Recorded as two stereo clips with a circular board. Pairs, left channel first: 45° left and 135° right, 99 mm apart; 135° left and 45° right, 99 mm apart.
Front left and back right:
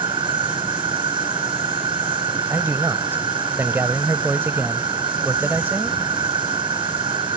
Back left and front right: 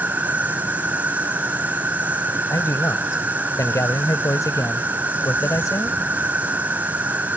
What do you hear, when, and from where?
0.0 s an insect: 120° right
2.5 s a man speaking: 170° left